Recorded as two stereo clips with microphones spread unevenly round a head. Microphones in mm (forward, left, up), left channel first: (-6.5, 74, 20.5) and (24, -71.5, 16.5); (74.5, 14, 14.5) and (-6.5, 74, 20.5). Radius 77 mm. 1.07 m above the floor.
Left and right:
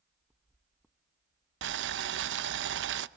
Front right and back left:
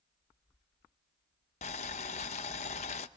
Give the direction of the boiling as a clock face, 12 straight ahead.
3 o'clock.